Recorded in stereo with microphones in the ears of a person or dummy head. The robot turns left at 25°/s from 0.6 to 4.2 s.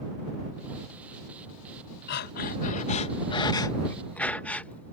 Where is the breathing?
60° left; by 4.9 s 5° left.